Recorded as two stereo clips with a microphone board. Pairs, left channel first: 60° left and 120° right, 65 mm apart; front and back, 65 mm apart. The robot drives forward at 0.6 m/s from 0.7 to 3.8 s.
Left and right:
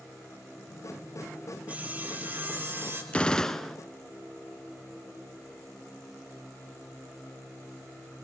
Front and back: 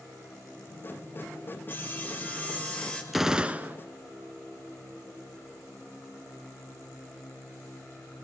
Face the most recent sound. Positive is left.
turn(degrees=145)